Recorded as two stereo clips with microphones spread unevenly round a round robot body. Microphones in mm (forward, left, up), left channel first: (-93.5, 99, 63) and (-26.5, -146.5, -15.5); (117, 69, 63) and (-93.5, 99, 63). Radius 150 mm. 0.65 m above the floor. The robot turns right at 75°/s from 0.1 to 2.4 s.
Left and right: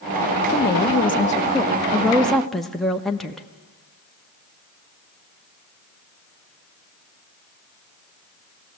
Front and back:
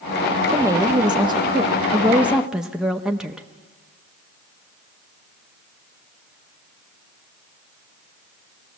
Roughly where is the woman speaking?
Behind left.